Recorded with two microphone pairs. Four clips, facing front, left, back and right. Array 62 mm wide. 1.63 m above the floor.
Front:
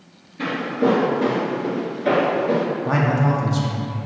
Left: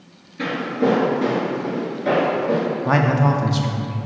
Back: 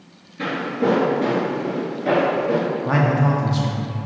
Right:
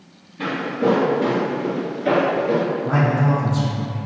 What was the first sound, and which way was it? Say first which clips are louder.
Footsteps: even, front 1 dB; 95° left.